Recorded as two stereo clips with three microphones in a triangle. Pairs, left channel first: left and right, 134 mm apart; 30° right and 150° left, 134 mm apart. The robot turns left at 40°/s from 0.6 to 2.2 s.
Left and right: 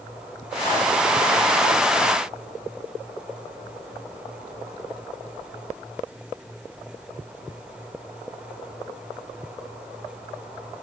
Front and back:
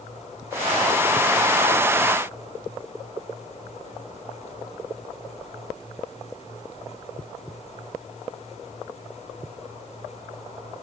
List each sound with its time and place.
Only background noise.